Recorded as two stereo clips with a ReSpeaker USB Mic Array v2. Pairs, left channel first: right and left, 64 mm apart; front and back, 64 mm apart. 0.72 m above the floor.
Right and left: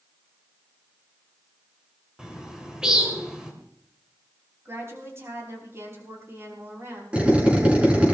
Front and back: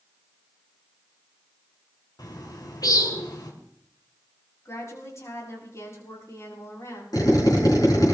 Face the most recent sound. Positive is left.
turn(degrees=20)